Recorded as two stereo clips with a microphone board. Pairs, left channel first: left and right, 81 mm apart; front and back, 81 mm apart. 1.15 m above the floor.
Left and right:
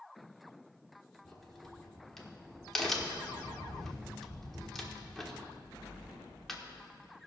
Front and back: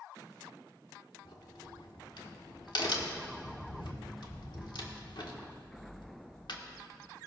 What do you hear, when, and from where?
1.2 s a crack: 5° left, 1.4 m